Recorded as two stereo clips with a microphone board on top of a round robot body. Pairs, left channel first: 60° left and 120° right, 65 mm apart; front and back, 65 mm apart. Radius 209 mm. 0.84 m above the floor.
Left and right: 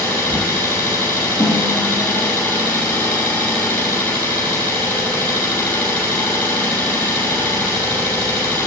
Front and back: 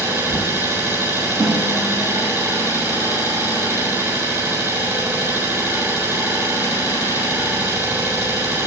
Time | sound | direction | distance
0.0 | an engine running | 130° left | 8 m
1.4 | a snare drum | 120° left | 3.5 m